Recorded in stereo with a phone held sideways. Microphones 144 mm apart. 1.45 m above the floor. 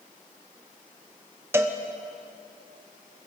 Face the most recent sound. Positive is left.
turn(degrees=-15)  # may be behind; listen again after turning